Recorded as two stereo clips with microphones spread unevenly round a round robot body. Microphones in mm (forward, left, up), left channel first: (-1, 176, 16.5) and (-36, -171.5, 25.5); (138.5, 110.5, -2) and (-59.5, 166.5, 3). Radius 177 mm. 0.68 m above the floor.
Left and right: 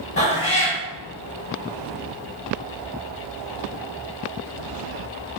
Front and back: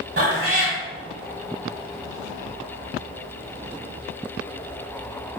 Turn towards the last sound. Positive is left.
turn(degrees=140)